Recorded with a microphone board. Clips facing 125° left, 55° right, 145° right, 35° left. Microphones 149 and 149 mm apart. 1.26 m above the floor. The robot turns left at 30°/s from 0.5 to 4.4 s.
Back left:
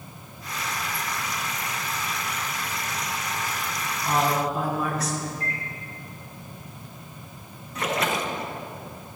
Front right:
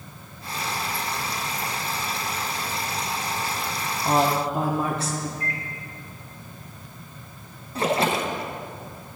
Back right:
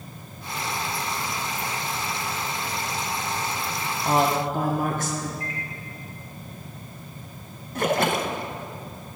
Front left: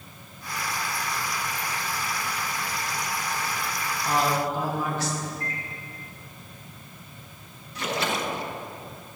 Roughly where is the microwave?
Left.